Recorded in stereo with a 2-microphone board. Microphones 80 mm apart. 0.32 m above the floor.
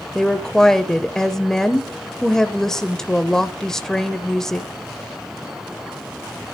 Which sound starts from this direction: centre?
A woman speaking, at 0.1 s.